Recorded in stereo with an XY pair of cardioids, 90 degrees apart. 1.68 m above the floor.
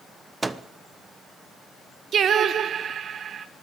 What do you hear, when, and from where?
0.4 s a microwave: 25° right, 1.1 m
2.1 s singing: 65° right, 1.1 m